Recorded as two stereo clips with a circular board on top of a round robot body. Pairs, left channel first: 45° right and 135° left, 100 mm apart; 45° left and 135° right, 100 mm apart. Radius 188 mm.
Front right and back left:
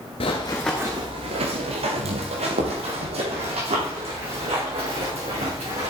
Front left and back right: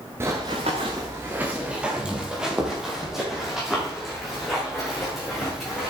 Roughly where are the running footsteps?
Right.